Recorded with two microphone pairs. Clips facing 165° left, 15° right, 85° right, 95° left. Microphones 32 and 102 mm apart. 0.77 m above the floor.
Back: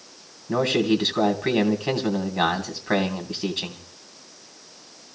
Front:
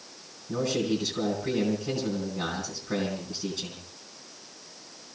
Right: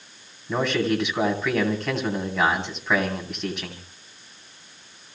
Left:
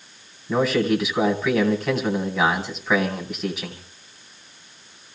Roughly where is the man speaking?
Behind.